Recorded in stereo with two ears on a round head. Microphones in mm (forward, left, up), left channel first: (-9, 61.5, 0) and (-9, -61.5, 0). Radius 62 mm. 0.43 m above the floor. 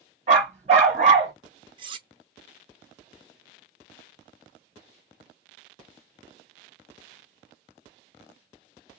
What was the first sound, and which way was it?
A dog barking, 50° right (ahead or behind).